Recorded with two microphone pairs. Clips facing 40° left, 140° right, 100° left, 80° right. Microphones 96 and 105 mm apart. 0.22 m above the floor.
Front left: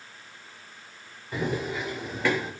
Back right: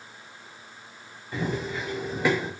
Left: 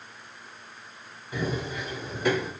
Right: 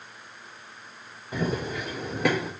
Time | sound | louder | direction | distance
1.3 | running footsteps | front left 1 dB, right 2 dB | 35° right | 1.7 m